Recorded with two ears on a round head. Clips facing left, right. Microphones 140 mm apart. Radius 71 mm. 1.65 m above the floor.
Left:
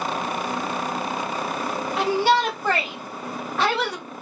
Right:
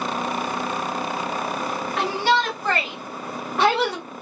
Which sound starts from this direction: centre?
A shout, at 2.0 s.